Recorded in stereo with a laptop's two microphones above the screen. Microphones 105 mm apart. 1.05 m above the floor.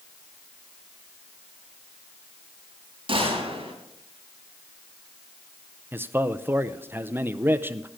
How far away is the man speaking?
About 0.6 m.